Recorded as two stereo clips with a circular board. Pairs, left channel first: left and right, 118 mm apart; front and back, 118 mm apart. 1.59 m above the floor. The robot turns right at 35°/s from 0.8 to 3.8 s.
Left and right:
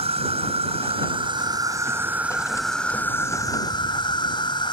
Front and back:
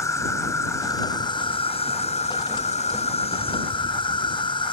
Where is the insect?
65° right; by 4.7 s 40° left.